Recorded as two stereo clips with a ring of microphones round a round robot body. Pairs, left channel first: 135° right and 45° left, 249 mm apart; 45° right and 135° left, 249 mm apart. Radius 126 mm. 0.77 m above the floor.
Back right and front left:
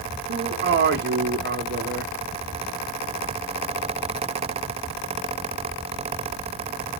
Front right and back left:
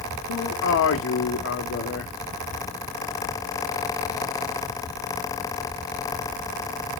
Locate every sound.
0.3 s a man speaking: 5° right, 1.7 m